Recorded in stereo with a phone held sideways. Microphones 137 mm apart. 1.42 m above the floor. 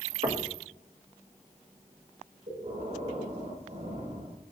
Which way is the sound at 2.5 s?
70° right (ahead or behind).